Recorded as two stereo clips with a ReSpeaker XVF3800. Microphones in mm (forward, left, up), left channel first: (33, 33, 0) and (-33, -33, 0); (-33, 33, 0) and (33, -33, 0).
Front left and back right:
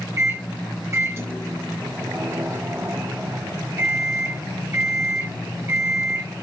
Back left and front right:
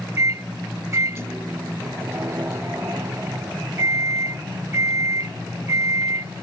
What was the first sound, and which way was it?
A microwave, 90° right.